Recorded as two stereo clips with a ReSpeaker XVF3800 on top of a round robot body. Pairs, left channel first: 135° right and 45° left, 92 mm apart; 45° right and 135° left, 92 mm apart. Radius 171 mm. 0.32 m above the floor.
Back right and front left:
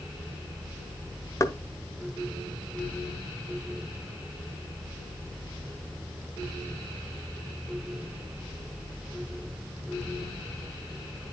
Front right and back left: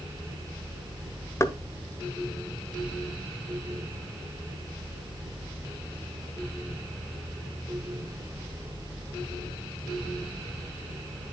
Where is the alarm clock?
No alarm clock in this recording.